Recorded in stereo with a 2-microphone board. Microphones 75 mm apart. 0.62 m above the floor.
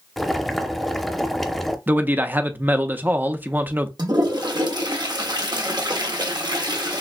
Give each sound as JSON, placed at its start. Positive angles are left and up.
{"t": 0.2, "sound": "boiling", "side_deg": 0, "distance_m": 0.6}
{"t": 1.9, "sound": "a man speaking", "side_deg": -25, "distance_m": 0.7}
{"t": 4.0, "sound": "a toilet flushing", "side_deg": -65, "distance_m": 1.1}